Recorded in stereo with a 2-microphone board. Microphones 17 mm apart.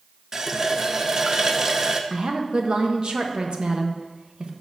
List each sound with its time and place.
0.3 s a running tap: 30° right (ahead or behind), 0.6 m
2.1 s a woman speaking: 65° right (ahead or behind), 1.0 m